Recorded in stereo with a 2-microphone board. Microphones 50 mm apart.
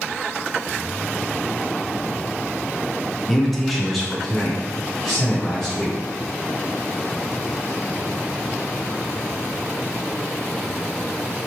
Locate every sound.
3.3 s a man speaking: 5° left (ahead or behind), 0.8 m; by 6.0 s centre (ahead or behind), 1.6 m